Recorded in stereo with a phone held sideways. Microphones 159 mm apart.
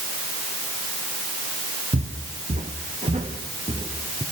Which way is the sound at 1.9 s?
55° right (ahead or behind).